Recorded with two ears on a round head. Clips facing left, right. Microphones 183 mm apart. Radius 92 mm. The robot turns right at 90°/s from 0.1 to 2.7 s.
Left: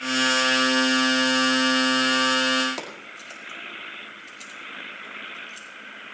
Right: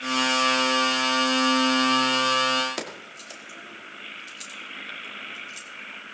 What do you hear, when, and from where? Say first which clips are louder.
2.8 s keys jangling: right 2 dB; 15° right (ahead or behind), 2 m